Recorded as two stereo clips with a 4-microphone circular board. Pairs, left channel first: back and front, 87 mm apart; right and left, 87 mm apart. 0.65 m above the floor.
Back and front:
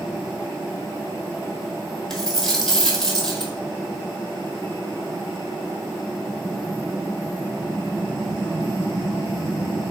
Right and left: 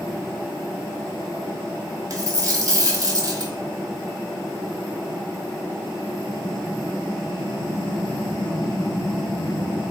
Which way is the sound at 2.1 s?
100° left.